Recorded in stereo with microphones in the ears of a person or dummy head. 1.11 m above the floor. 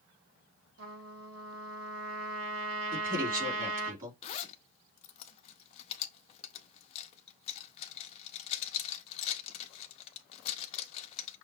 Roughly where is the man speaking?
Right.